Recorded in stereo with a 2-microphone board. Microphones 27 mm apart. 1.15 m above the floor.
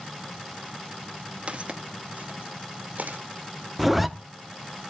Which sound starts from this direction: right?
Footsteps, at 1.5 s.